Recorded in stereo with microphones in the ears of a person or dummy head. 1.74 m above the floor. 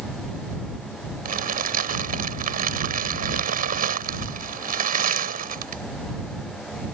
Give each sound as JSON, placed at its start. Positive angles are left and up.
{"t": 1.2, "sound": "crumpling", "side_deg": -45}